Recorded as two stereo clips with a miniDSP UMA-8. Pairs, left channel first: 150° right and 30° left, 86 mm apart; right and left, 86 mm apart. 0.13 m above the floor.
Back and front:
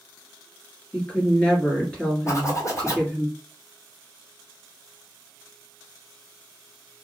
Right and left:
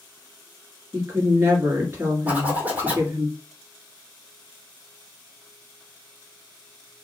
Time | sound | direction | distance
0.9 | a woman speaking | 135° left | 2 m
2.3 | a zipper | 160° left | 2.0 m